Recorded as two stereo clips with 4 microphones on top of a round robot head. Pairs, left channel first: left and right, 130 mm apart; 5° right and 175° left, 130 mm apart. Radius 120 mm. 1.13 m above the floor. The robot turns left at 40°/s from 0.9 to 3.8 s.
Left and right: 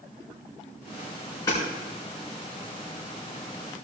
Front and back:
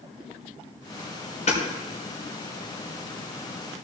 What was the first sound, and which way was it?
Hammering, 20° left.